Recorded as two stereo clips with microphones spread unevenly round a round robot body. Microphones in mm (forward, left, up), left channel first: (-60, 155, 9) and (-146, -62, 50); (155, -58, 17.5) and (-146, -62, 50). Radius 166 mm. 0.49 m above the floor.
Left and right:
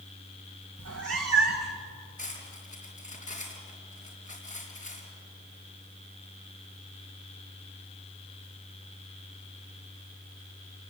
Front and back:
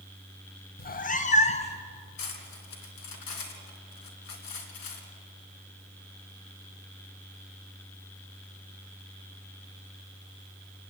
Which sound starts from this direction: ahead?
Cutlery clinking, at 2.2 s.